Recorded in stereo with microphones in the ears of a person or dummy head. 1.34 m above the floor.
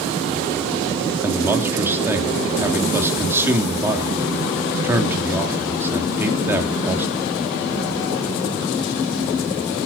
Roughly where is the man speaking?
Centre.